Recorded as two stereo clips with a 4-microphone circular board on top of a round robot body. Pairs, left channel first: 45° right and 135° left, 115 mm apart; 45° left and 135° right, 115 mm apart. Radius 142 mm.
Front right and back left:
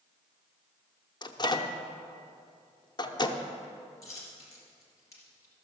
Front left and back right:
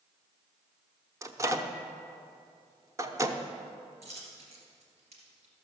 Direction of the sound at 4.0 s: 110° right.